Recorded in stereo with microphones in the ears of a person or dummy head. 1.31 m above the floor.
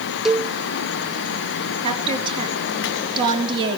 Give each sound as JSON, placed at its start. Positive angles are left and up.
{"t": 0.2, "sound": "a cowbell", "side_deg": 0, "distance_m": 0.7}
{"t": 1.8, "sound": "a woman speaking", "side_deg": -30, "distance_m": 4.0}